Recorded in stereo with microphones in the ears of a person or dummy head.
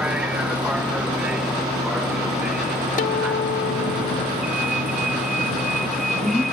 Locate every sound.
0.0 s a vehicle: 5° right (ahead or behind); by 6.5 s centre (ahead or behind)
3.0 s a guitar: 40° left (ahead or behind)